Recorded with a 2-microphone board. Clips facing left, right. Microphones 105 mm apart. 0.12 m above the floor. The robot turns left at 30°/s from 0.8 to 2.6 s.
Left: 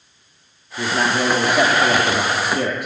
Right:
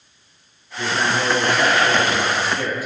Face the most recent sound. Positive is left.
turn(degrees=80)